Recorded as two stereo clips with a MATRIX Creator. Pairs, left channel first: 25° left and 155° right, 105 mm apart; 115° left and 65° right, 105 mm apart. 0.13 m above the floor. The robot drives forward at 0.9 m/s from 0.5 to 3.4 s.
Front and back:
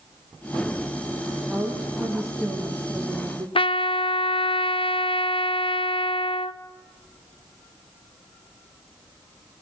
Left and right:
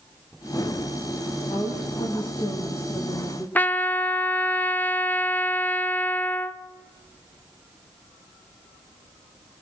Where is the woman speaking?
115° left, 2.5 m; by 3.5 s 145° left, 3.5 m.